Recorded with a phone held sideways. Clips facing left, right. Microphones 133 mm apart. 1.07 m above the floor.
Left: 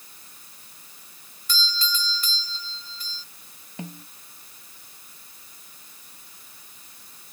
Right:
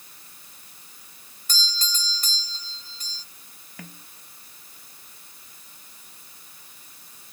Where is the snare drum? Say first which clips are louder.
Left 7 dB; 20° left (ahead or behind).